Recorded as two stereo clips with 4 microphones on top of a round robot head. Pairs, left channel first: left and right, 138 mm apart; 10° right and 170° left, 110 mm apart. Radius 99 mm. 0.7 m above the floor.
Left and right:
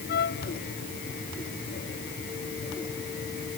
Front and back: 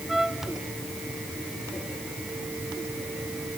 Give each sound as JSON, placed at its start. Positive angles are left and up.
{"t": 0.1, "sound": "a trumpet", "azimuth_deg": 80}